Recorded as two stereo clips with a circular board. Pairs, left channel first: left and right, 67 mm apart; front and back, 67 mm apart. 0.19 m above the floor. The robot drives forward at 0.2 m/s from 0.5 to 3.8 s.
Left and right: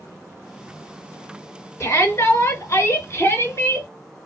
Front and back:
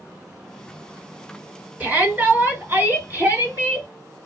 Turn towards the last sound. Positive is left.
turn(degrees=125)